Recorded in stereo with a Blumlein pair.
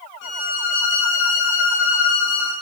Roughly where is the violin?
Ahead left.